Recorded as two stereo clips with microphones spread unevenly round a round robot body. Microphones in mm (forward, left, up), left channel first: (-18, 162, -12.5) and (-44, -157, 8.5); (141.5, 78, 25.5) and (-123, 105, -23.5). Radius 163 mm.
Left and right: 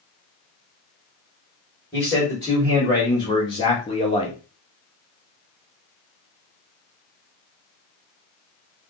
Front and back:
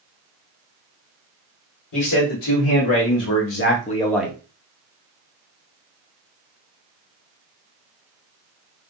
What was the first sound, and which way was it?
A man speaking, 5° left.